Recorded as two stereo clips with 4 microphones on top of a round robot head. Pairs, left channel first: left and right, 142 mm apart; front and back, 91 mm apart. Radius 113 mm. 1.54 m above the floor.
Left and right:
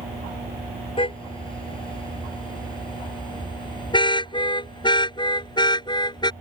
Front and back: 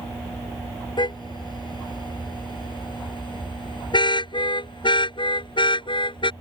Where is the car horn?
35° left; by 6.3 s 30° left.